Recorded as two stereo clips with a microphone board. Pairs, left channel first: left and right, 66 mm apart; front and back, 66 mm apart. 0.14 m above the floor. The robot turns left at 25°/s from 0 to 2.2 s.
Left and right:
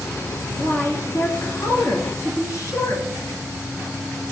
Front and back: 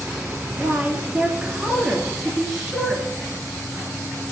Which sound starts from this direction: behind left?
A woman speaking, at 0.6 s.